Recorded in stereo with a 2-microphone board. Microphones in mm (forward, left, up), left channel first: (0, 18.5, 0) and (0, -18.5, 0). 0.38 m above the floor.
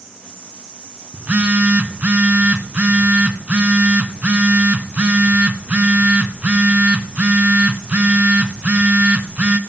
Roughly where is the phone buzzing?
Right.